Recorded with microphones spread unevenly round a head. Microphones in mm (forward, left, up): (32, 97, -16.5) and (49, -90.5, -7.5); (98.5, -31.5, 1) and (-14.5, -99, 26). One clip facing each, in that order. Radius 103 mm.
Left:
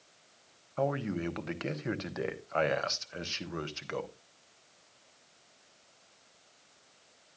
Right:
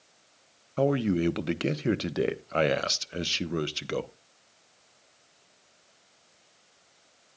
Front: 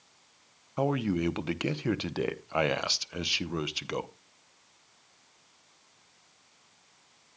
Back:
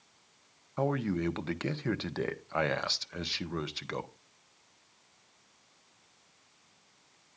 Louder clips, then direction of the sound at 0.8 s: Right 7 dB, front 3 dB; 50° right.